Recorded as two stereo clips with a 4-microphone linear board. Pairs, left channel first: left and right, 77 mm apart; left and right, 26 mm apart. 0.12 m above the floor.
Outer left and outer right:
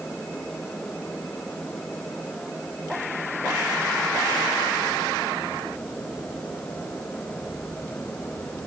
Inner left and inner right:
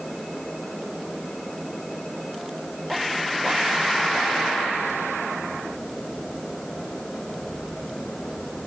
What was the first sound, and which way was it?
Only background noise.